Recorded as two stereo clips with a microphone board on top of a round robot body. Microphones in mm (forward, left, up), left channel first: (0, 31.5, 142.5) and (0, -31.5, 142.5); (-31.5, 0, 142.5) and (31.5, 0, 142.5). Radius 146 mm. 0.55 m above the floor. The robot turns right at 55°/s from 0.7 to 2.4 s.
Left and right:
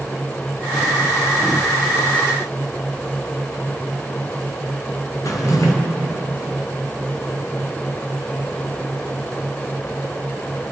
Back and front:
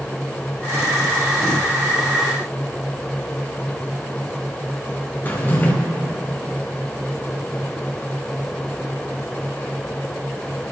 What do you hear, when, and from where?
5.2 s a drawer: 120° left, 1.2 m